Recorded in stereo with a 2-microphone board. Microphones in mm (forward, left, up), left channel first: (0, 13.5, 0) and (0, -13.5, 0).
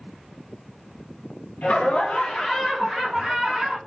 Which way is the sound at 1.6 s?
65° left (ahead or behind).